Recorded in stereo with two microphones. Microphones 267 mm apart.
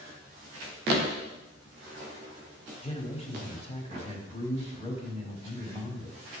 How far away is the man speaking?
About 1.8 m.